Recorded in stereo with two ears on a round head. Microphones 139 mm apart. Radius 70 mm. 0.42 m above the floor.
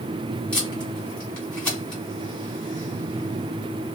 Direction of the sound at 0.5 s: 10° left (ahead or behind).